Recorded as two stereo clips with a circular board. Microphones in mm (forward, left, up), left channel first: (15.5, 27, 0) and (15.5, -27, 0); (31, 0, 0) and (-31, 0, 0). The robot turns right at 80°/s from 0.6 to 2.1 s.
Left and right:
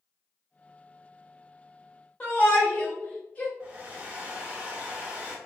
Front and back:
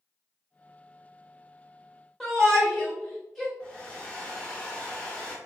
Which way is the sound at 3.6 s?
55° right.